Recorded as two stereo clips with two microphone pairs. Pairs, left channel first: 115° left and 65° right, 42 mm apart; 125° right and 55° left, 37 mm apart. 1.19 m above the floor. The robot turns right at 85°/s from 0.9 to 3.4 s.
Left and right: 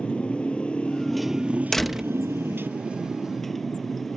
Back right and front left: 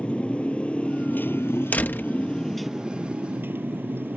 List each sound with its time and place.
0.0 s a motorcycle: straight behind; by 4.2 s 30° left
1.7 s a door slam: 170° right; by 2.1 s 135° right